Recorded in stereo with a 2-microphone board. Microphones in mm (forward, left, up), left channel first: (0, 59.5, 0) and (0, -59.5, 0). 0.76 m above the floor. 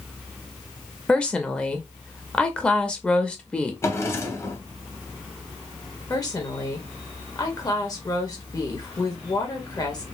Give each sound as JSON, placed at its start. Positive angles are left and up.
{"t": 1.1, "sound": "a woman speaking", "side_deg": 10, "distance_m": 0.7}
{"t": 3.8, "sound": "a drawer", "side_deg": 25, "distance_m": 0.9}
{"t": 6.1, "sound": "a woman speaking", "side_deg": 30, "distance_m": 1.1}